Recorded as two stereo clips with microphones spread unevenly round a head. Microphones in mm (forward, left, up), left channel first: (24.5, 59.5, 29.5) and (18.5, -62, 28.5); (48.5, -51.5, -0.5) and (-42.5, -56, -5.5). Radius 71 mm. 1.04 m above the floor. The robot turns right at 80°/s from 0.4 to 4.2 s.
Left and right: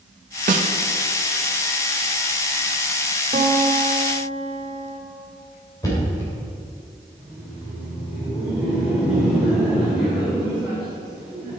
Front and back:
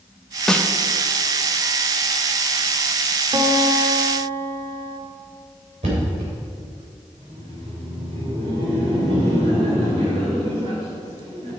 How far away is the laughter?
About 3.5 m.